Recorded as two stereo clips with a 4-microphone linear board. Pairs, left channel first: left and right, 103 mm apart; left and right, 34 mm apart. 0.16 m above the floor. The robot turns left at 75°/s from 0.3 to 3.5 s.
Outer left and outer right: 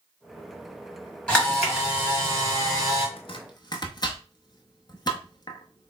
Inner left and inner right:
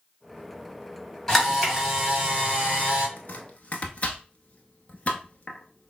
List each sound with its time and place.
1.3 s a camera shutter: 20° left, 1.9 m; by 3.1 s 110° right, 1.9 m
3.2 s chopping: 60° left (ahead or behind), 0.7 m; by 5.9 s 40° left (ahead or behind), 0.7 m